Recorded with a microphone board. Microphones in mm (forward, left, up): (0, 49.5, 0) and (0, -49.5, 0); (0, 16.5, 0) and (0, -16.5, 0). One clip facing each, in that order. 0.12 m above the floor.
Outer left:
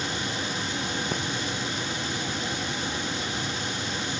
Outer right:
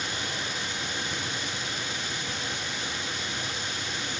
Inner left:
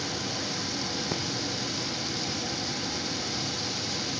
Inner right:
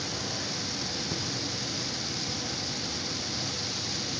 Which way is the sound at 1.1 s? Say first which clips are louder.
Outer left 5 dB, inner left 4 dB; 65° left (ahead or behind).